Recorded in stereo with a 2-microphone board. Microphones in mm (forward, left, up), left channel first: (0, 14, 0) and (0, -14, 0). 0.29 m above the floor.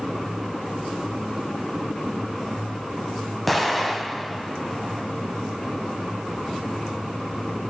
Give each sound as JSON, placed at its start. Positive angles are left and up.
{"t": 3.5, "sound": "an explosion", "side_deg": 5, "distance_m": 1.9}